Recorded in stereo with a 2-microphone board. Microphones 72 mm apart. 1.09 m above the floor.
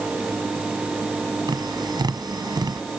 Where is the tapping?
65° right (ahead or behind).